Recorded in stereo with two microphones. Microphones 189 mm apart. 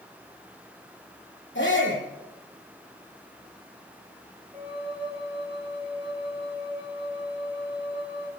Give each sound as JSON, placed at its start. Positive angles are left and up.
{"t": 1.6, "sound": "a shout", "side_deg": 80, "distance_m": 9.5}
{"t": 4.5, "sound": "a flute", "side_deg": -30, "distance_m": 6.5}